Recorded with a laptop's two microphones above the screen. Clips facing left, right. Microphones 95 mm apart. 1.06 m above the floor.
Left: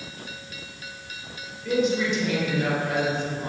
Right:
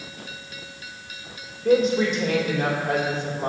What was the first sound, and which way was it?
A woman speaking, 45° right (ahead or behind).